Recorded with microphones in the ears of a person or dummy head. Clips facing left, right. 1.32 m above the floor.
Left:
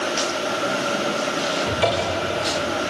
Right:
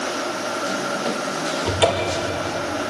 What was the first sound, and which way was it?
A cupboard door, 60° right (ahead or behind).